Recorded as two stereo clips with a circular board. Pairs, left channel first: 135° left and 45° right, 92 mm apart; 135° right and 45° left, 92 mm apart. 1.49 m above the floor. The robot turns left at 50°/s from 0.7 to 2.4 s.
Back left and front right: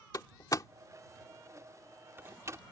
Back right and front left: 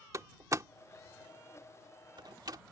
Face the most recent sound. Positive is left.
turn(degrees=10)